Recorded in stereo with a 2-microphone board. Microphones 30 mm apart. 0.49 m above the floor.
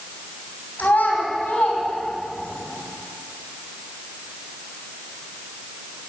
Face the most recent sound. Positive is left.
turn(degrees=75)  # may be behind; listen again after turning